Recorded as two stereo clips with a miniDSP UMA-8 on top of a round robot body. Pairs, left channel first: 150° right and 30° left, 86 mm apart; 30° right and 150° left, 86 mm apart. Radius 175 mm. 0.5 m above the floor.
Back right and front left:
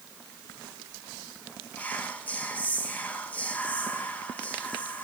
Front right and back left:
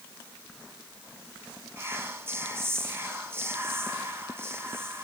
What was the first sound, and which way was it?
Whispering, 165° left.